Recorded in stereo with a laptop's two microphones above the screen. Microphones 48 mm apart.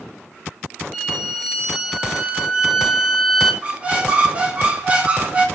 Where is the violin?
5° right (ahead or behind), 1.0 m.